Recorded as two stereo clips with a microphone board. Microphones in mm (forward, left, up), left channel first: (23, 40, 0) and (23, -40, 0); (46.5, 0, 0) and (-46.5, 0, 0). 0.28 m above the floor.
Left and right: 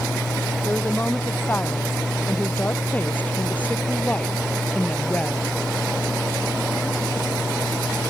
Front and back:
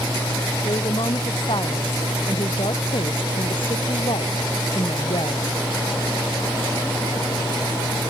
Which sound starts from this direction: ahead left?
A woman speaking, at 0.6 s.